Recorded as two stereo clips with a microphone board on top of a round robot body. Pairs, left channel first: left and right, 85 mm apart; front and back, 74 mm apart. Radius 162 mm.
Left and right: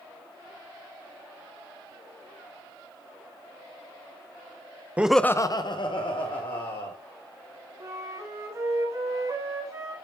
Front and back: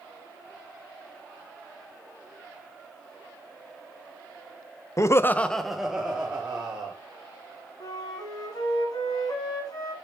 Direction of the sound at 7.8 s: 35° right.